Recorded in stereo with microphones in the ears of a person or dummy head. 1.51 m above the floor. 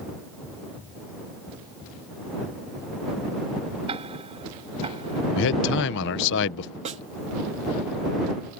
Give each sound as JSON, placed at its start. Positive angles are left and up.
{"t": 3.9, "sound": "ticking", "side_deg": -30}
{"t": 5.4, "sound": "a man speaking", "side_deg": 65}
{"t": 6.8, "sound": "a snare drum", "side_deg": -35}